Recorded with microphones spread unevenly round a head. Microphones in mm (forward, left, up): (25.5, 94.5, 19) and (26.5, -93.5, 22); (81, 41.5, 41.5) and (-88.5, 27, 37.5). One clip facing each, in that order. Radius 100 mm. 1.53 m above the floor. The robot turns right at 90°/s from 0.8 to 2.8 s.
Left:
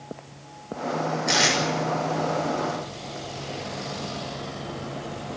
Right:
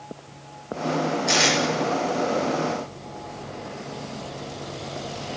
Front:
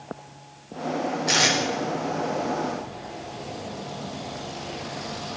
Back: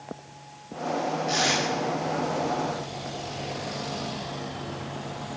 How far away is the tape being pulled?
About 6 m.